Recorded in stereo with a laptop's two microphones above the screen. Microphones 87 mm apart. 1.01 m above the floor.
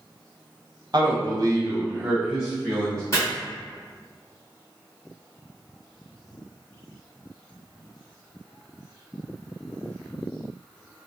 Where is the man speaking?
50° right (ahead or behind), 0.8 m; by 3.0 s 5° left (ahead or behind), 1.3 m.